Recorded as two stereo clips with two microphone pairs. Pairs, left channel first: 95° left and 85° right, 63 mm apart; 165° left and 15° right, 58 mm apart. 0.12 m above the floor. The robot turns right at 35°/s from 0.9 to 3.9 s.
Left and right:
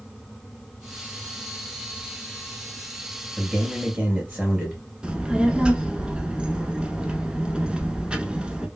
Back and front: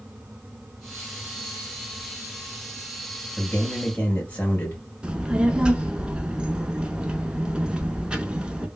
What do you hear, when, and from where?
3.4 s a man speaking: 160° right, 2 m; by 4.8 s 140° right, 2 m
5.0 s a child speaking: 50° right, 0.7 m